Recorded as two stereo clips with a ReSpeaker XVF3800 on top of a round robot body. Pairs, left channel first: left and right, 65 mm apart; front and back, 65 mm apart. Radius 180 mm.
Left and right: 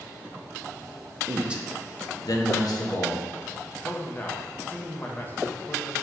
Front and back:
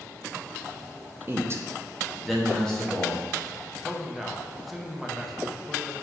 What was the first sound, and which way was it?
A man speaking, 135° right.